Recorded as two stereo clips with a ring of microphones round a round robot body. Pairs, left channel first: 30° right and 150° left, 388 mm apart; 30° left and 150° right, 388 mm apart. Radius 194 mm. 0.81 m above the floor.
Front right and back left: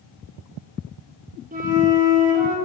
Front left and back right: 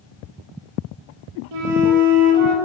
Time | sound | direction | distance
1.5 | a flute | 145° right | 0.9 m